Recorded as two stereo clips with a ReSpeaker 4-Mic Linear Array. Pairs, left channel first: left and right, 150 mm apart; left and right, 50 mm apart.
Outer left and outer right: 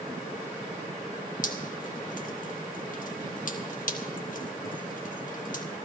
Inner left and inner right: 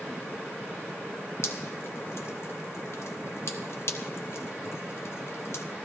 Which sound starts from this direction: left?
Dripping, at 1.4 s.